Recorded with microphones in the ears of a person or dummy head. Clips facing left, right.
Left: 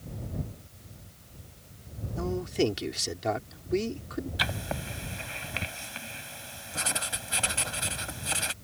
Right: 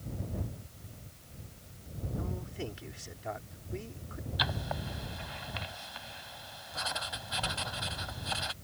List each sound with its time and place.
2.2 s a man speaking: 75° left (ahead or behind)
4.4 s writing: 35° left (ahead or behind)